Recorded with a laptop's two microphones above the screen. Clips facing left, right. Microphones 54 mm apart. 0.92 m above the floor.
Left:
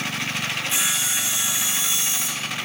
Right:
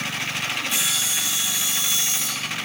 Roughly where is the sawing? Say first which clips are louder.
Left 1 dB; left.